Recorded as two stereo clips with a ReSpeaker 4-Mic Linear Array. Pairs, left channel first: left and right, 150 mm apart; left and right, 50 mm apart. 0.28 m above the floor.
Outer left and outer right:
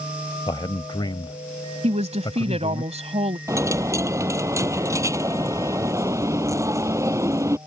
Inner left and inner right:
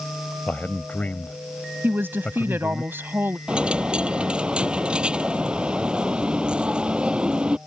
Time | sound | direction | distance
0.5 | a man speaking | 35° left (ahead or behind) | ?
1.8 | a woman speaking | 45° right (ahead or behind) | ?
3.5 | a dropped coin | 20° right (ahead or behind) | ?